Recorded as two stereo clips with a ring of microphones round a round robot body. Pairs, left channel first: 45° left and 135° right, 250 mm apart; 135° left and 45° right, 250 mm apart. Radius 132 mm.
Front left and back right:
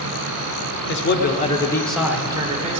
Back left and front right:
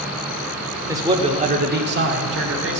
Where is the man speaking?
30° left, 1.3 m; by 2.8 s 75° right, 1.7 m.